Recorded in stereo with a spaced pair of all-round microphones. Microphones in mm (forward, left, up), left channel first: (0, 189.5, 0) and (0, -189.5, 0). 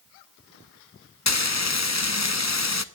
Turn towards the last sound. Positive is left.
turn(degrees=45)  # may be behind; listen again after turning